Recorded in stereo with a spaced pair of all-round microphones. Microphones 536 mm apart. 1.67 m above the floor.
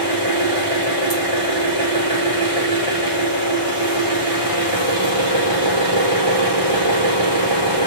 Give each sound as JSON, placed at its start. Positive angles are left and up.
{"t": 0.0, "sound": "an engine running", "side_deg": -80, "distance_m": 3.0}